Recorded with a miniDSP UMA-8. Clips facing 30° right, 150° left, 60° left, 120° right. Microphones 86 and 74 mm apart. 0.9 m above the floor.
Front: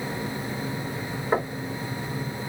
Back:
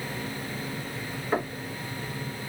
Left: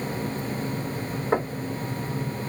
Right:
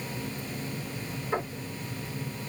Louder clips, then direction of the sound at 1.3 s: Front 3 dB, left 6 dB; 35° left.